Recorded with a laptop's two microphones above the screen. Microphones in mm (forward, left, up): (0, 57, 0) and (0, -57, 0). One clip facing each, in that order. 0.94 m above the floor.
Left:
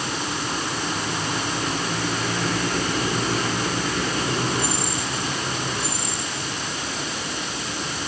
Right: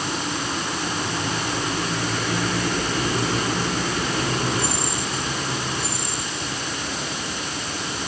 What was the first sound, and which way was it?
Only background noise.